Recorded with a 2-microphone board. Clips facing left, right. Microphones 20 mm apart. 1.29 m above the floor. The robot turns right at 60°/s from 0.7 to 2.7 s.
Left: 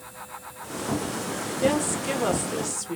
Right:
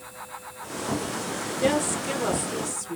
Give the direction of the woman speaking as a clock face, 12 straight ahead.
12 o'clock.